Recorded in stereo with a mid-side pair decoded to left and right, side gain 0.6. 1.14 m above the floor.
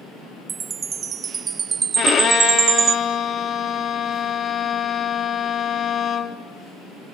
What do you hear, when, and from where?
0.5 s a chime: 40° right, 0.9 m
2.0 s a violin: 40° left, 2.5 m